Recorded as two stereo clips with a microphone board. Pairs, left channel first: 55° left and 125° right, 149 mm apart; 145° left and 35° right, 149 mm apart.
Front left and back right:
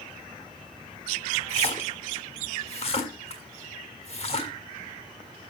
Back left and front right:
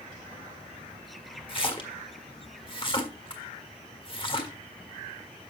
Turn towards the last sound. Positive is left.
turn(degrees=95)